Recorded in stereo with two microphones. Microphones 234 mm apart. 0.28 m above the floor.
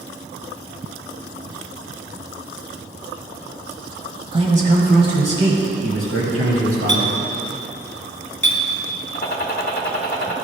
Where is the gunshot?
45° left (ahead or behind), 0.9 m.